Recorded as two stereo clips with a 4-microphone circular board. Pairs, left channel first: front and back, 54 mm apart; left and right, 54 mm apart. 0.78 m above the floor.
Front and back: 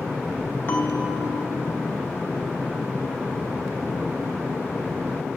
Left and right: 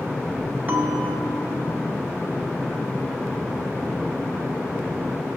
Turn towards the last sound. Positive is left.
turn(degrees=-35)